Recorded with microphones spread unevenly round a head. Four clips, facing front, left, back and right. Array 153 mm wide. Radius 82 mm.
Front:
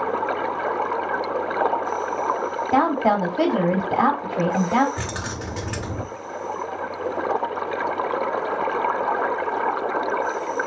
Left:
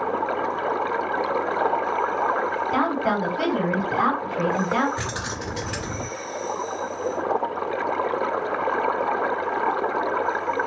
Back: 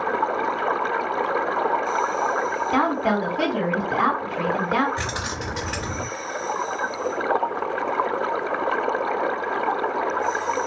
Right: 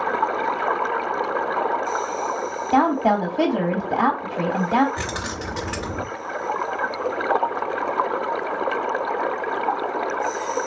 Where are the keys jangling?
60° right, 1.1 m.